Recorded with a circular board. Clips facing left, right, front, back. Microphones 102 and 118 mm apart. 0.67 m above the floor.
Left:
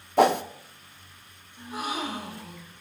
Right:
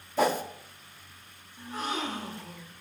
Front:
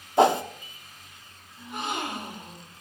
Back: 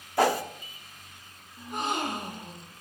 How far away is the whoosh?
About 0.5 m.